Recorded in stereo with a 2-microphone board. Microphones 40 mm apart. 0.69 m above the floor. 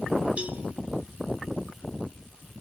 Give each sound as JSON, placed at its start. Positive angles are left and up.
{"t": 0.4, "sound": "a cowbell", "side_deg": -40, "distance_m": 0.7}